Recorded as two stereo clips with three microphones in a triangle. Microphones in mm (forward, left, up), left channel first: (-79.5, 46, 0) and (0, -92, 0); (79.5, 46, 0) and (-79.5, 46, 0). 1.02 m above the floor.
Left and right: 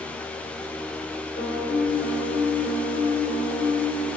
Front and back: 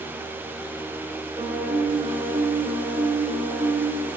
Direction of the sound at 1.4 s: 115° left.